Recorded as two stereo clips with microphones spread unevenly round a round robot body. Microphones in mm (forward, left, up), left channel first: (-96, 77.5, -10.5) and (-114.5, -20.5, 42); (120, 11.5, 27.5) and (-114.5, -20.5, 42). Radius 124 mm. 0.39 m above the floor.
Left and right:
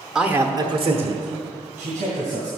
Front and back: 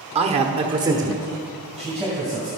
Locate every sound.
0.1 s a man speaking: 135° left, 1.1 m; by 2.5 s 80° right, 2.5 m